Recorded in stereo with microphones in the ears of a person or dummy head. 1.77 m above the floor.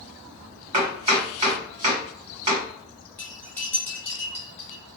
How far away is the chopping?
About 1.6 m.